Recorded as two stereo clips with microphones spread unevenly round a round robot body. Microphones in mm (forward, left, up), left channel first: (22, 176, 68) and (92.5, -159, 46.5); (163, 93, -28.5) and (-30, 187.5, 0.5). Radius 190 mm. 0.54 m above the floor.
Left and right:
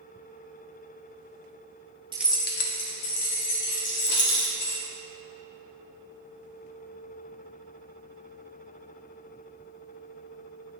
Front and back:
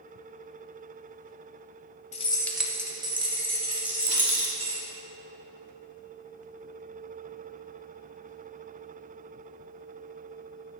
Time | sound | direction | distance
2.1 | keys jangling | 15° right | 0.8 m
3.8 | a rattle | 65° left | 1.2 m